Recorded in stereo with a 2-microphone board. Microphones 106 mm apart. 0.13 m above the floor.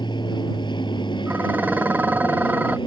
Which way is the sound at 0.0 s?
45° left (ahead or behind).